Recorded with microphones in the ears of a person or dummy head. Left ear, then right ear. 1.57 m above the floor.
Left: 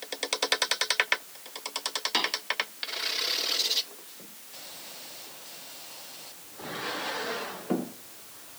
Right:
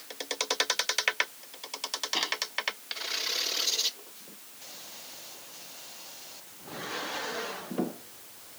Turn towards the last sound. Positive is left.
turn(degrees=50)  # may be behind; listen again after turning